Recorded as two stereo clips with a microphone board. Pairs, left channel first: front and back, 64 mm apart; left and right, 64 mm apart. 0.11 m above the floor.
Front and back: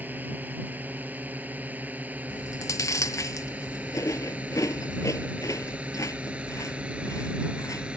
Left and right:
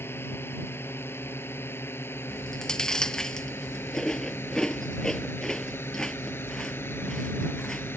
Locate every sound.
0.0 s a drone: 125° left; by 8.0 s 115° left
2.3 s chewing: 10° left